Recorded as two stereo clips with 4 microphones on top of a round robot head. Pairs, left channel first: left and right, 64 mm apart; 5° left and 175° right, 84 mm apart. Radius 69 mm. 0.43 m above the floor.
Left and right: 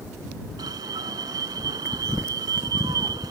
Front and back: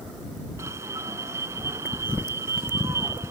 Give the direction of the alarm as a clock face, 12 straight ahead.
4 o'clock.